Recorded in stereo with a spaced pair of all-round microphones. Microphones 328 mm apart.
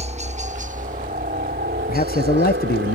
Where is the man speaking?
25° left (ahead or behind).